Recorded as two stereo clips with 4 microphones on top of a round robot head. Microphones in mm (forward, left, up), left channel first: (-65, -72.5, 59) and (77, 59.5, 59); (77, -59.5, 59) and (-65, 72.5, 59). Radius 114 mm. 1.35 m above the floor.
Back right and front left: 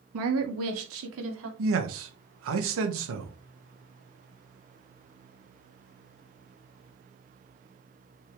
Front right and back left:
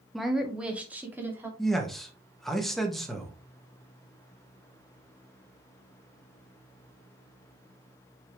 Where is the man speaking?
45° left, 1.9 m.